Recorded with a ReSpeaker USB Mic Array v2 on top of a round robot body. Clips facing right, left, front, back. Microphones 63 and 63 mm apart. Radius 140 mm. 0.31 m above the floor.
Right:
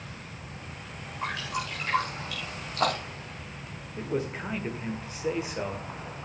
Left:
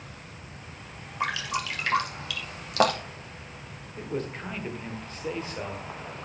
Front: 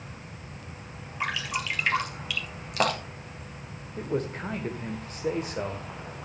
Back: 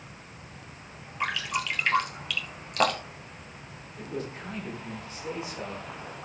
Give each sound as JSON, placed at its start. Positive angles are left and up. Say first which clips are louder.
{"t": 1.2, "sound": "dripping", "louder": "left 3 dB, back 1 dB", "azimuth_deg": 85, "distance_m": 2.5}
{"t": 4.0, "sound": "a man speaking", "louder": "right 2 dB, front 6 dB", "azimuth_deg": -15, "distance_m": 1.6}